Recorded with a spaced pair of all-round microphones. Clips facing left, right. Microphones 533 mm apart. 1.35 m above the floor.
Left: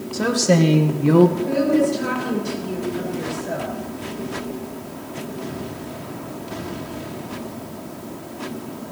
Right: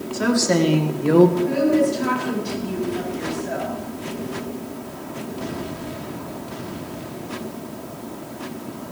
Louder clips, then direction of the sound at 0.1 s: Left 1 dB; 60° left (ahead or behind).